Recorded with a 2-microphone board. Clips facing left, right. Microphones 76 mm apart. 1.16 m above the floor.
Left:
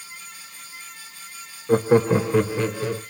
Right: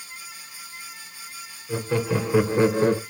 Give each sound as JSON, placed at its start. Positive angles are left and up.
{"t": 1.7, "sound": "laughter", "side_deg": 50, "distance_m": 0.9}